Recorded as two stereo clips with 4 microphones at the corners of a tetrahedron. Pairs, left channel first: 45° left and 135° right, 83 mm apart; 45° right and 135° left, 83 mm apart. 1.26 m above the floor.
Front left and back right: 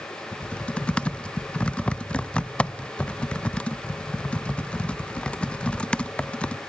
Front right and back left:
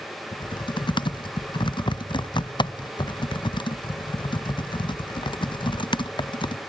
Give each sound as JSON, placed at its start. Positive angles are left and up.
{"t": 0.3, "sound": "typing on a keyboard", "azimuth_deg": -30, "distance_m": 0.6}